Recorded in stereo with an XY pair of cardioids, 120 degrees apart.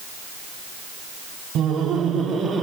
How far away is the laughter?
About 2.5 m.